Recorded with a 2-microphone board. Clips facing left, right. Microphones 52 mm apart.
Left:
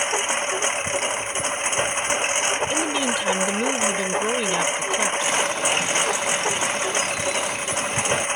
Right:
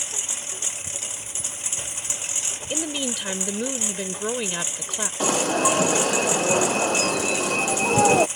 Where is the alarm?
60° right (ahead or behind).